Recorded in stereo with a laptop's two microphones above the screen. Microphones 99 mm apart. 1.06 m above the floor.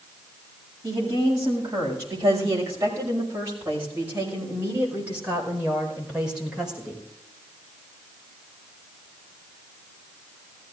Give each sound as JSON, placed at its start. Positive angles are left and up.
{"t": 0.8, "sound": "a woman speaking", "side_deg": -35, "distance_m": 7.0}